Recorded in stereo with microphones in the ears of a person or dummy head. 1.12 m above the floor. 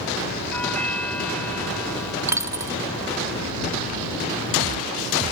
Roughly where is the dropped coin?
Centre.